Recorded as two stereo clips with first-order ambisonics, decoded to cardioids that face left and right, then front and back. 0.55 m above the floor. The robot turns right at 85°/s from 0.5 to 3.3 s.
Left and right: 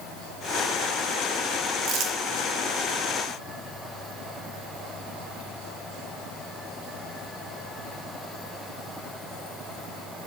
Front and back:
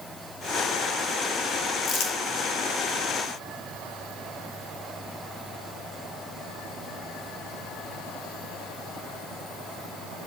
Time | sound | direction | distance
1.9 | crumpling | 55° right | 1.0 m